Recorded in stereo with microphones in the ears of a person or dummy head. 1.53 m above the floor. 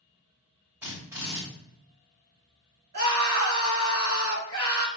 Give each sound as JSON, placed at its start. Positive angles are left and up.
{"t": 0.8, "sound": "a drill", "side_deg": -10, "distance_m": 3.0}
{"t": 2.9, "sound": "a scream", "side_deg": -50, "distance_m": 2.0}